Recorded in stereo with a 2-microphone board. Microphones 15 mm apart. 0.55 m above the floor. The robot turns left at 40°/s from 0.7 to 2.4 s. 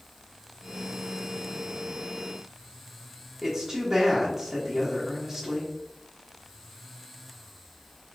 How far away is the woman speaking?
About 1.3 m.